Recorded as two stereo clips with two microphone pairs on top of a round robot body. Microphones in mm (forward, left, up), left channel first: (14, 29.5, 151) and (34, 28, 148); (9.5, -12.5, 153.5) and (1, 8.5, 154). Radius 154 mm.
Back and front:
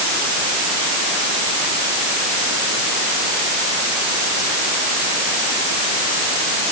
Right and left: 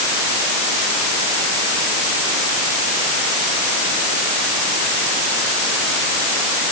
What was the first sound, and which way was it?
Only background noise.